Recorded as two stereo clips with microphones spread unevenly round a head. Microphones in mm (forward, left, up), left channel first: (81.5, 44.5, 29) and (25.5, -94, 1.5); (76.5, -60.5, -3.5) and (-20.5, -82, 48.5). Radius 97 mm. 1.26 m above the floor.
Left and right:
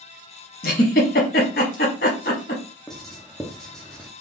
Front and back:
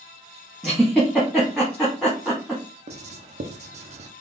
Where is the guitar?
I don't hear a guitar.